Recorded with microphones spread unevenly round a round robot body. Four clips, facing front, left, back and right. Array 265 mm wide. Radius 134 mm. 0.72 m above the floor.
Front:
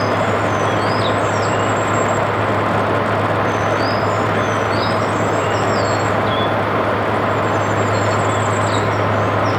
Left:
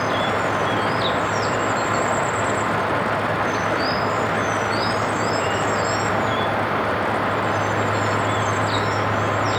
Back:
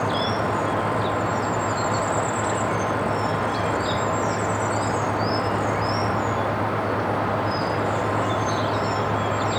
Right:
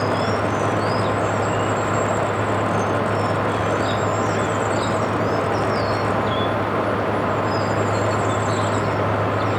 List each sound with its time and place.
Only background noise.